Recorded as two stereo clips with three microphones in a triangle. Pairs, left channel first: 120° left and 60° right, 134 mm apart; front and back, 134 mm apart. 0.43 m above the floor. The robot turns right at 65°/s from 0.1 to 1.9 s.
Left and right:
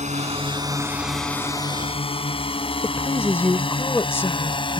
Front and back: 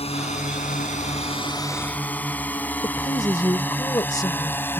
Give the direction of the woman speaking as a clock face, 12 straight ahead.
10 o'clock.